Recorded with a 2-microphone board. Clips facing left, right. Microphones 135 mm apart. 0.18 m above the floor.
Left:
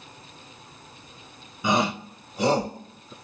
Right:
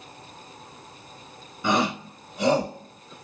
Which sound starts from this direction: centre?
A shout, at 1.6 s.